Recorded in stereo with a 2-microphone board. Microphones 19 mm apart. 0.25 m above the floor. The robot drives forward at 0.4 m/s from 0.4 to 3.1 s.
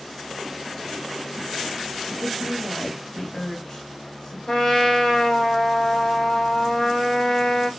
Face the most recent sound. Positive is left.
turn(degrees=20)  # may be behind; listen again after turning